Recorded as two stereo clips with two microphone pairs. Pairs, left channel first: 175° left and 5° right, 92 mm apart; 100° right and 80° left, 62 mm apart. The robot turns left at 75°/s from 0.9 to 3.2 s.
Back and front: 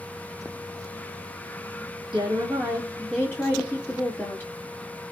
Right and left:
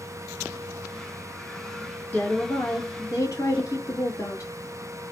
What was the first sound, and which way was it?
A woman speaking, 40° right.